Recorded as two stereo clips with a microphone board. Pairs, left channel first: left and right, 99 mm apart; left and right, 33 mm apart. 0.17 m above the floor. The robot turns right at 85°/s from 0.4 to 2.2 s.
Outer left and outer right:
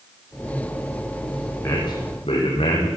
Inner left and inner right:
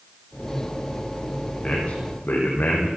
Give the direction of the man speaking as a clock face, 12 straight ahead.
11 o'clock.